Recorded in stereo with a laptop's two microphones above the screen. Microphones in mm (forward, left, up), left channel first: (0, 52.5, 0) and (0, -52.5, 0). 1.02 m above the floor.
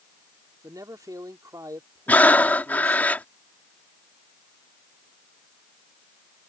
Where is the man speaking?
35° right (ahead or behind).